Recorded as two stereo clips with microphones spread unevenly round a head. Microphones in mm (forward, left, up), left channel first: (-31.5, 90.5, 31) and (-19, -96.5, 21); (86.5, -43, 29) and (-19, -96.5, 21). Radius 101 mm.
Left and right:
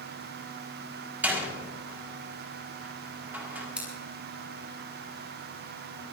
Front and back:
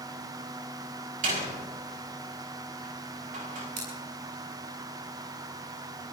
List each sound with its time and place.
1.2 s a door slam: 165° right, 5 m
3.8 s scissors: 170° right, 8.5 m